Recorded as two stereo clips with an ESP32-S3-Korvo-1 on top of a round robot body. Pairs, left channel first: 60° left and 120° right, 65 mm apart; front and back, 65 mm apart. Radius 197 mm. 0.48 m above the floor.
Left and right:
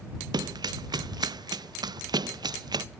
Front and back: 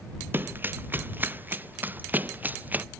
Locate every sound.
0.3 s running footsteps: 120° right; by 2.9 s 115° right